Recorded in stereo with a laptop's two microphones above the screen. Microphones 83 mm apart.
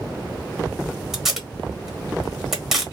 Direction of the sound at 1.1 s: 5° right (ahead or behind).